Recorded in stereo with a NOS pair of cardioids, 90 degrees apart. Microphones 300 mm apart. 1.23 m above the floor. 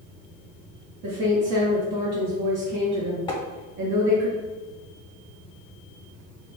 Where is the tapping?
15° left, 0.8 m.